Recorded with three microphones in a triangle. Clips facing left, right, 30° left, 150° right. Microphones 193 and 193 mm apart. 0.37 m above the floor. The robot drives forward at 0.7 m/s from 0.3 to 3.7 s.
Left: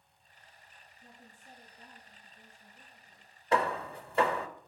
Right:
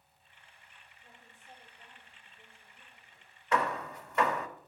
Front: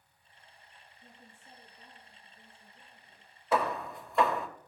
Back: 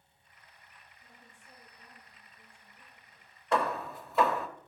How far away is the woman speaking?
About 7 m.